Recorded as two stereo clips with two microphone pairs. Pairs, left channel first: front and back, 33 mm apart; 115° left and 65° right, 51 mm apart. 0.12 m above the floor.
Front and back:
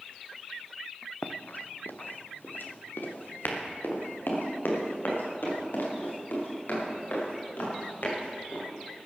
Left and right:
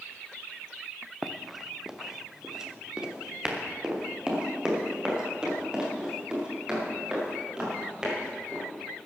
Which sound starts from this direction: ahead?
Running footsteps, at 1.2 s.